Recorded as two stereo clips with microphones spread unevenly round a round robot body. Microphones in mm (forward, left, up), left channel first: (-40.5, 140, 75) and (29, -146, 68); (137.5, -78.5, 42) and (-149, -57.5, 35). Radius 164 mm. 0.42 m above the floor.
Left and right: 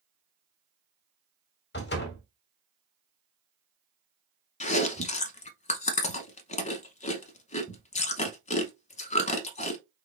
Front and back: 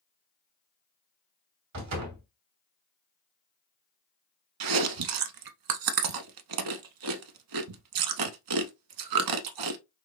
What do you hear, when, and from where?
1.7 s a door slam: 155° left, 2.5 m
4.6 s chewing: 170° left, 0.9 m